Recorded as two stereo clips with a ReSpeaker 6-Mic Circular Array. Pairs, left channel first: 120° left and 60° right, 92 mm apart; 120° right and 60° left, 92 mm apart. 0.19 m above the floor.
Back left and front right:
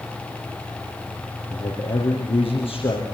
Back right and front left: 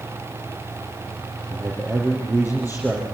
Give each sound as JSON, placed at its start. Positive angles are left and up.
{"t": 1.5, "sound": "a man speaking", "azimuth_deg": 125, "distance_m": 5.0}